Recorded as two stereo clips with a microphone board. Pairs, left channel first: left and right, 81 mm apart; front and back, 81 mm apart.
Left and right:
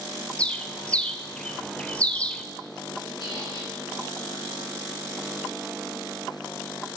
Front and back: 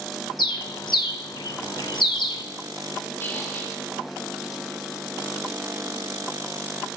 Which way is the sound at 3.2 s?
60° left.